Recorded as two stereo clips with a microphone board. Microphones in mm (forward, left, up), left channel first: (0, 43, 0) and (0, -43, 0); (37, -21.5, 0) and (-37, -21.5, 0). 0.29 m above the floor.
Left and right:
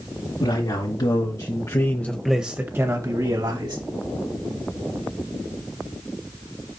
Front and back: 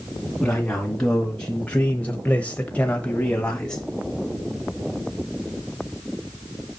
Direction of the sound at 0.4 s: 80° left.